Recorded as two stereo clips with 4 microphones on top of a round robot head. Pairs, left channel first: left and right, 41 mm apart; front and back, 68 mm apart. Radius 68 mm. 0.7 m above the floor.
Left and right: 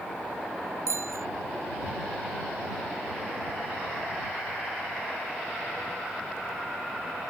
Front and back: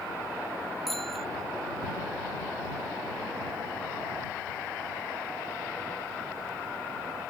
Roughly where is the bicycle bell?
Right.